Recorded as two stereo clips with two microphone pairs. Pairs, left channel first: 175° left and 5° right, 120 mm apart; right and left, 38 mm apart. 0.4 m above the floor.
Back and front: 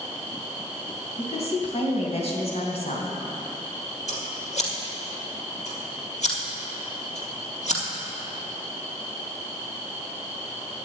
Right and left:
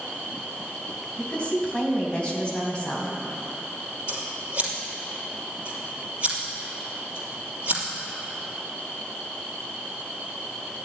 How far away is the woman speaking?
About 3 m.